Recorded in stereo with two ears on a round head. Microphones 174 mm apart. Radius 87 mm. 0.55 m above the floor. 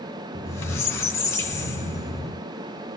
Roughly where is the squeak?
Centre.